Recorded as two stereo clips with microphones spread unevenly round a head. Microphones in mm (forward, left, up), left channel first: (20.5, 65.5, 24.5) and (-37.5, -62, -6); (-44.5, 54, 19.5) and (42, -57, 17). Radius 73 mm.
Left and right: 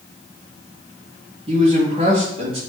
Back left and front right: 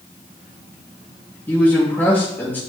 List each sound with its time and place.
1.5 s a man speaking: 155° right, 2.0 m